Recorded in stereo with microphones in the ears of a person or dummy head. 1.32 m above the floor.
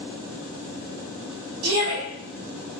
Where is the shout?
85° right, 1.9 m.